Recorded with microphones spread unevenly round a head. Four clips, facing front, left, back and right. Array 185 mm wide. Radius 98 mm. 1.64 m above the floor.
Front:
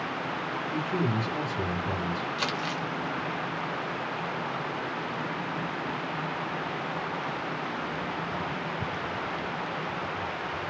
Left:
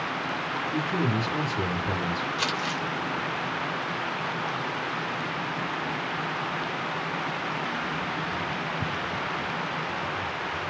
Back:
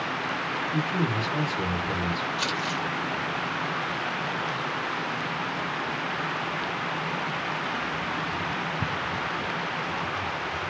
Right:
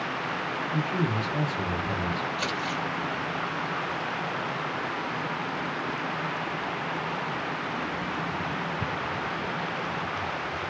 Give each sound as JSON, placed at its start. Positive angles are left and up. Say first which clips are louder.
{"t": 0.7, "sound": "a man speaking", "louder": "left 1 dB, even", "azimuth_deg": 50, "distance_m": 2.0}
{"t": 2.4, "sound": "crumpling", "louder": "left 1 dB, back 2 dB", "azimuth_deg": 60, "distance_m": 1.8}